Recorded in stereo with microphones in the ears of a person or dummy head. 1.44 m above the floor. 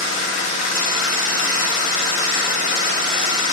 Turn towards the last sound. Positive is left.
turn(degrees=55)  # may be behind; listen again after turning